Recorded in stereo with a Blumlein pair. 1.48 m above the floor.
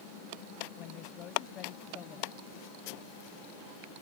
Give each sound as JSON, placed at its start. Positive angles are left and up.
{"t": 0.8, "sound": "a woman speaking", "azimuth_deg": 35}